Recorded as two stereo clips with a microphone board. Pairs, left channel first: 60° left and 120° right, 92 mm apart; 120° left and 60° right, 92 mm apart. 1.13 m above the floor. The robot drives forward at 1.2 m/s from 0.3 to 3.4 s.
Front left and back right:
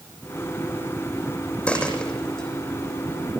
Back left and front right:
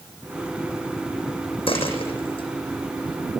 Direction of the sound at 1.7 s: 140° left.